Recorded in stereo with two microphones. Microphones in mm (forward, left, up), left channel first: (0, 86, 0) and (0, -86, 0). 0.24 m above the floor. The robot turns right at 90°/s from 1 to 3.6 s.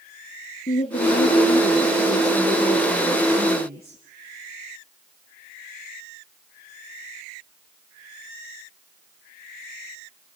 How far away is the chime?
No chime in this recording.